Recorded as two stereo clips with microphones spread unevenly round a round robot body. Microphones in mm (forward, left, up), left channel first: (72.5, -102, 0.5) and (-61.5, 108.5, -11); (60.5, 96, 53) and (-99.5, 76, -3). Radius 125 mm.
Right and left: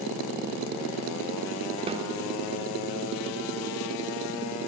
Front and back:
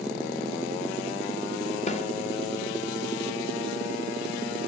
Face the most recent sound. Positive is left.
turn(degrees=65)